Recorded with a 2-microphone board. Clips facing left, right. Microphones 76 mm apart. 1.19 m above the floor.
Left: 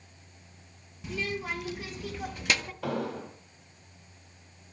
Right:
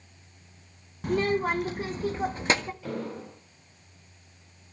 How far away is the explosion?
About 5 m.